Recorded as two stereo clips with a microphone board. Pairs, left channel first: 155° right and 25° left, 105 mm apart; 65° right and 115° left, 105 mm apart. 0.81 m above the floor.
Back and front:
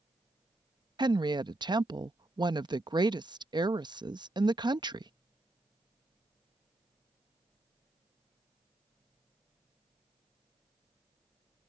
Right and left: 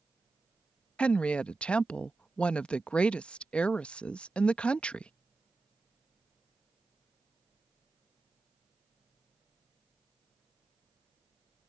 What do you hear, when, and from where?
1.0 s a woman speaking: 10° left